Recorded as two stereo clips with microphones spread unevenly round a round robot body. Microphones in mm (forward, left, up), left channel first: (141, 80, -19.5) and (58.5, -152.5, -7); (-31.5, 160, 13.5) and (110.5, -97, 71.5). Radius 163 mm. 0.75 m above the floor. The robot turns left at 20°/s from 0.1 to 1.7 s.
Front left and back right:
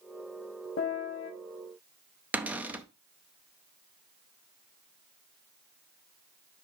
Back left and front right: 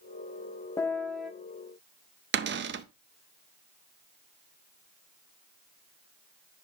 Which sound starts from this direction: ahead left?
A piano, at 0.8 s.